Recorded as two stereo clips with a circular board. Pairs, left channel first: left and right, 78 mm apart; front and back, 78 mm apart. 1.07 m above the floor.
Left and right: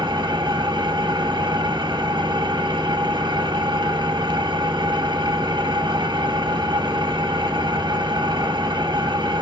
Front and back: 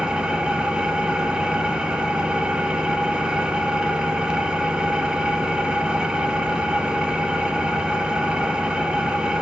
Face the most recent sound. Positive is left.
turn(degrees=-100)